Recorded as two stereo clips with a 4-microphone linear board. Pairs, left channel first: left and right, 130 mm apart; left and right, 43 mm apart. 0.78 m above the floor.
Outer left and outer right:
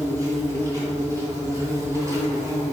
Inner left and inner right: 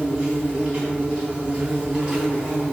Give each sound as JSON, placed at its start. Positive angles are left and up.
{"t": 0.0, "sound": "an insect", "side_deg": -25, "distance_m": 2.5}